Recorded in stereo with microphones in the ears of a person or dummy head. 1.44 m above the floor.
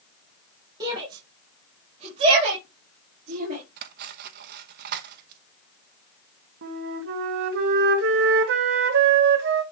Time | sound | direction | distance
0.8 | a shout | 20° right (ahead or behind) | 3 m
3.8 | cutlery clinking | 55° right (ahead or behind) | 0.9 m
6.6 | a flute | 65° right (ahead or behind) | 1.3 m